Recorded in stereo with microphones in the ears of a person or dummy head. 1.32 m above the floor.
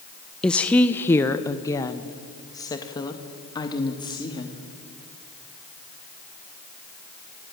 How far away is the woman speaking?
About 0.8 m.